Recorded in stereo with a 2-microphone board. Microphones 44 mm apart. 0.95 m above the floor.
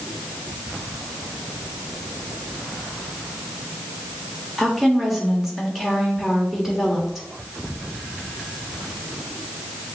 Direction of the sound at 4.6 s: 5° right (ahead or behind).